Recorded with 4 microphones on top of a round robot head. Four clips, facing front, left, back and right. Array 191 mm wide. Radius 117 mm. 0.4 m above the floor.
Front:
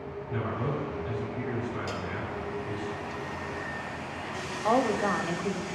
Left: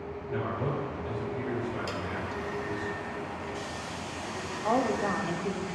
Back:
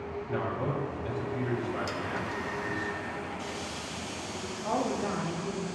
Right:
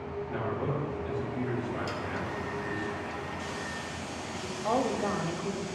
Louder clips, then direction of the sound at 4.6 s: Left 1 dB, front 5 dB; 5° left.